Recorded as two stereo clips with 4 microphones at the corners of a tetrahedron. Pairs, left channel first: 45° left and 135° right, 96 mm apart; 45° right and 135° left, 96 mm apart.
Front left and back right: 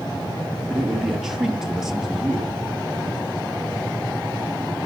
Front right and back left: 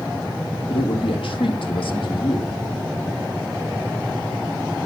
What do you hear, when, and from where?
0.7 s a man speaking: 50° right, 4.5 m